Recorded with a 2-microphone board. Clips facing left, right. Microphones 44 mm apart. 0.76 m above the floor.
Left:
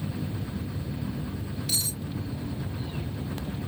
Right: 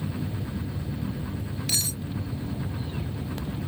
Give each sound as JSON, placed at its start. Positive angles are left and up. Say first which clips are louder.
{"t": 1.7, "sound": "cutlery clinking", "louder": "right 3 dB", "side_deg": -70}